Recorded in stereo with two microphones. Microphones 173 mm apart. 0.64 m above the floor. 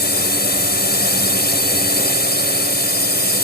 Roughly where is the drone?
Left.